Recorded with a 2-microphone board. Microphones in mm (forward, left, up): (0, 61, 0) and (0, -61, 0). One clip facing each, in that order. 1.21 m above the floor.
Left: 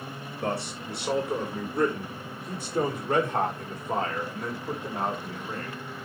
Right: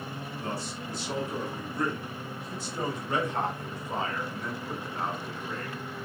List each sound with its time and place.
0.4 s a man speaking: 70° left (ahead or behind), 3 m; by 5.8 s 45° left (ahead or behind), 5.5 m